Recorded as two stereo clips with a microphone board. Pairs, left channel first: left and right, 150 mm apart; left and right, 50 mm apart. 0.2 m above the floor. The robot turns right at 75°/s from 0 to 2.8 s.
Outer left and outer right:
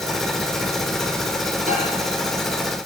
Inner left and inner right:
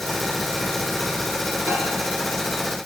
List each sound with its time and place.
1.7 s a microwave: 60° right (ahead or behind), 6.5 m; by 1.8 s 65° right (ahead or behind), 6.5 m